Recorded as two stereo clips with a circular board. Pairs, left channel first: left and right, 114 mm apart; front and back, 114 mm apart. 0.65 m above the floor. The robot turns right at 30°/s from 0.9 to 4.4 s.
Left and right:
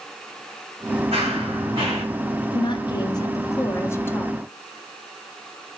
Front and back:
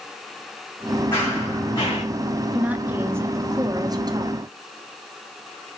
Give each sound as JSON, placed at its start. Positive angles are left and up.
{"t": 1.1, "sound": "running footsteps", "azimuth_deg": -75, "distance_m": 2.5}
{"t": 2.5, "sound": "a woman speaking", "azimuth_deg": 105, "distance_m": 0.6}